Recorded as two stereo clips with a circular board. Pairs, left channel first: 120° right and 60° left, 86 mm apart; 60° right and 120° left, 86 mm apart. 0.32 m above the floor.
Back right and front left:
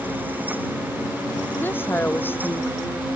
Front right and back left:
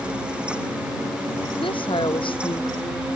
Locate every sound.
1.6 s a woman speaking: 55° right